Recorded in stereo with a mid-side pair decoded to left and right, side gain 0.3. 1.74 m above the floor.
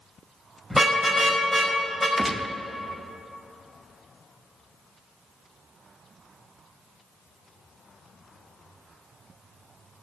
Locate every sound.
0.7 s a car horn: straight ahead, 5.5 m
2.2 s a gunshot: 30° right, 0.8 m